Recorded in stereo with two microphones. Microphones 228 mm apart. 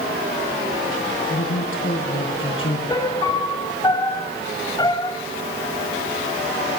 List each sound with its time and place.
1.3 s a woman speaking: 60° left (ahead or behind), 4.5 m
2.9 s a piano: 20° left (ahead or behind), 1.4 m